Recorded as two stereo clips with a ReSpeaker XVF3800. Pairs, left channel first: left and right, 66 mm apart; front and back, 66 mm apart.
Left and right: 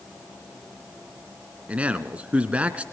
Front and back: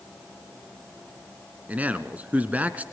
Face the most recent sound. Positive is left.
turn(degrees=-140)